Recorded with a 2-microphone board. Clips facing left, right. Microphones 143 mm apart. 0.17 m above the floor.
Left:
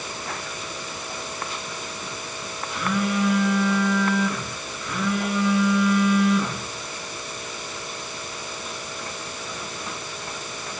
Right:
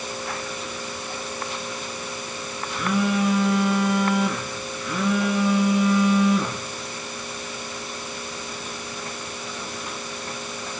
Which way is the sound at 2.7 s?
15° right (ahead or behind).